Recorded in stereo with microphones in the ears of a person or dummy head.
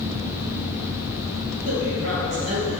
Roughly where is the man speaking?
Right.